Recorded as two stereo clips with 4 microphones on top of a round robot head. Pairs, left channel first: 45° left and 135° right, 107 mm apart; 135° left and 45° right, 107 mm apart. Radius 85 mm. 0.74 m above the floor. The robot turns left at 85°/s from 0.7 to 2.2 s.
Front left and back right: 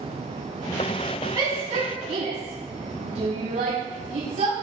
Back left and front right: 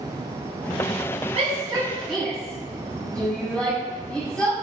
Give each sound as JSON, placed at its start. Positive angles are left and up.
{"t": 1.4, "sound": "a shout", "azimuth_deg": -70, "distance_m": 7.0}